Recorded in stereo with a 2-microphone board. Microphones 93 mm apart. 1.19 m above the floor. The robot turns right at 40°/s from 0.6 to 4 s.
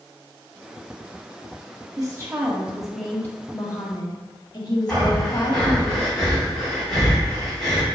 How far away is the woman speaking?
About 1.6 m.